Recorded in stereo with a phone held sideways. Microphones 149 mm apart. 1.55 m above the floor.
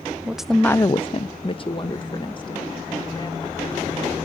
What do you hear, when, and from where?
0.2 s a woman speaking: 5° right (ahead or behind), 0.9 m; by 4.2 s 30° left (ahead or behind), 4 m